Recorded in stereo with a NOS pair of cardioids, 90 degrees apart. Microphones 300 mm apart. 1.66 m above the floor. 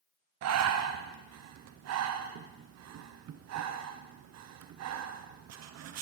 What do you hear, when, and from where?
0.4 s breathing: 65° right, 0.9 m